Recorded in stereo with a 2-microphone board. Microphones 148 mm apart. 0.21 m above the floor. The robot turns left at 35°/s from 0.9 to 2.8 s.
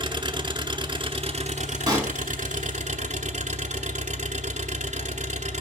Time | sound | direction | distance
0.0 | an engine running | 40° right | 1.1 m
1.9 | a pop | 30° right (ahead or behind) | 2 m